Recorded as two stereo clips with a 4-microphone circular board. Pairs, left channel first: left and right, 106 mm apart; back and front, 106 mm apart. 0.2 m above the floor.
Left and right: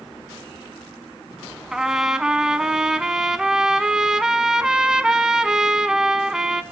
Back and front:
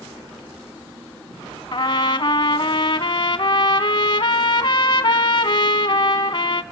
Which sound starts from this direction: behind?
A trumpet, at 1.7 s.